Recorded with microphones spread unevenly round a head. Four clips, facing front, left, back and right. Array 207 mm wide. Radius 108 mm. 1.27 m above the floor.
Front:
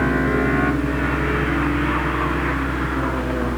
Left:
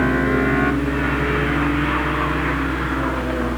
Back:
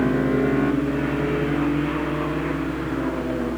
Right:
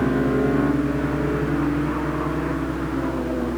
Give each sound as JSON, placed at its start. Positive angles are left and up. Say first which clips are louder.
{"t": 0.0, "sound": "a fan", "louder": "left 2 dB, front 1 dB", "azimuth_deg": 10}